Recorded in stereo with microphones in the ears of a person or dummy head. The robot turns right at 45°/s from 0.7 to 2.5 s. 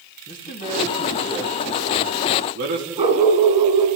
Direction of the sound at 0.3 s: 35° left (ahead or behind).